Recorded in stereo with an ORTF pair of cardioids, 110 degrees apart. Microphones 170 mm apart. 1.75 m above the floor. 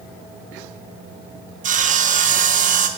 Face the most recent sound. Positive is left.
turn(degrees=-50)